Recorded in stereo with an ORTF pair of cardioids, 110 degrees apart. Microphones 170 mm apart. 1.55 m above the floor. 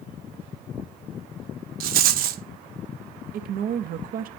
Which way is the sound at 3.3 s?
60° right.